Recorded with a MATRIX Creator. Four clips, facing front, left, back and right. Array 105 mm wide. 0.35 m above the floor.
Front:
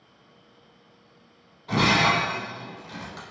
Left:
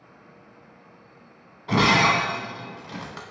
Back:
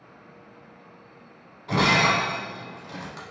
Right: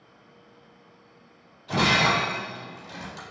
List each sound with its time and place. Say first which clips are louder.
1.7 s breaking glass: left 3 dB, even; 95° left, 0.7 m